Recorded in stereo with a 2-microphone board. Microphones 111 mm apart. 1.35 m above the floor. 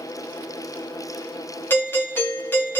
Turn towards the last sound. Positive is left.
turn(degrees=20)  # may be behind; listen again after turning